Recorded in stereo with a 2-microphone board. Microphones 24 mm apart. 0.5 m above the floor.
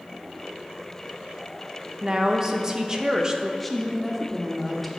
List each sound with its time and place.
2.0 s a woman speaking: 25° right (ahead or behind), 0.7 m
3.6 s a woman speaking: 5° left (ahead or behind), 0.9 m